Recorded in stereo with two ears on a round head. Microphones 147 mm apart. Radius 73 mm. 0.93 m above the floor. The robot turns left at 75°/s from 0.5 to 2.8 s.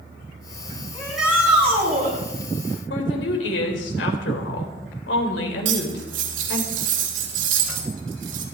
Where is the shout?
15° left, 9.5 m; by 2.1 s 75° right, 9.5 m.